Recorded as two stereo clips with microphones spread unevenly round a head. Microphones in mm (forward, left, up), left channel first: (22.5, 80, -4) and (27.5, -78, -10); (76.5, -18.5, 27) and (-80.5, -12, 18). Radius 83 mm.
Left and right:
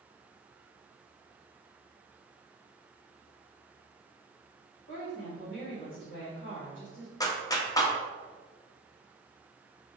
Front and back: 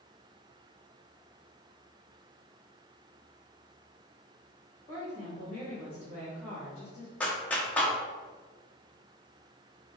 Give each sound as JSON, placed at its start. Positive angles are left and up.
{"t": 4.9, "sound": "a woman speaking", "azimuth_deg": 75, "distance_m": 2.0}
{"t": 7.2, "sound": "a clap", "azimuth_deg": 60, "distance_m": 0.6}